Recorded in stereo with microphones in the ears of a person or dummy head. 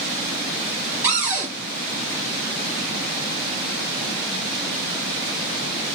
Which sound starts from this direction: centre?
A cupboard door, at 1.0 s.